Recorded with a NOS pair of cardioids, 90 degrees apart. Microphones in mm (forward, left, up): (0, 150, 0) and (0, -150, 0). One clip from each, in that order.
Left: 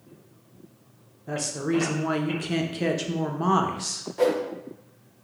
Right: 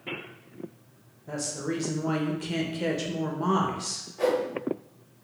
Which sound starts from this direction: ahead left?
A whoosh, at 4.2 s.